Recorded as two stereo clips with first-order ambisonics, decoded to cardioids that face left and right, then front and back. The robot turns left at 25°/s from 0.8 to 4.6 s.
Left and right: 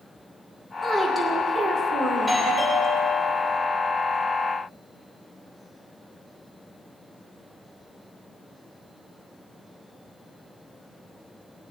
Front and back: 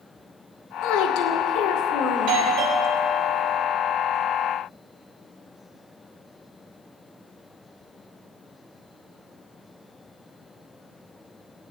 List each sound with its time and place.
0.8 s a woman speaking: 5° right, 2 m; by 2.4 s 45° right, 2 m
2.1 s a doorbell: 170° right, 3 m; by 3.6 s 150° left, 3 m